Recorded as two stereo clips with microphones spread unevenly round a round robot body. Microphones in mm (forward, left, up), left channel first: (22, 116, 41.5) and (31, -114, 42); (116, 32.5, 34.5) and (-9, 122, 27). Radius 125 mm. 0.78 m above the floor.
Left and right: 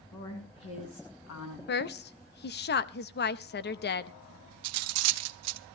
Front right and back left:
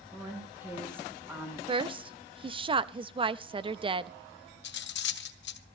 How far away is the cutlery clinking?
About 0.7 m.